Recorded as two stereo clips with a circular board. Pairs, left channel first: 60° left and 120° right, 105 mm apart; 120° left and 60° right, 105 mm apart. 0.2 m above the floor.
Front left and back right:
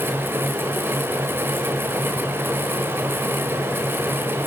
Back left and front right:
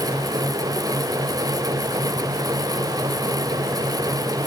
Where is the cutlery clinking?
I don't hear cutlery clinking.